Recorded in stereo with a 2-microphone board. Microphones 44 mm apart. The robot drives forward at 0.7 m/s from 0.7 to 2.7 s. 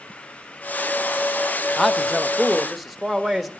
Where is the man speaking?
Centre (ahead or behind), 0.7 m.